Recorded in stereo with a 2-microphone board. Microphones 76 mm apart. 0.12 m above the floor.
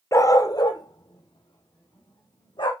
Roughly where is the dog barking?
Left.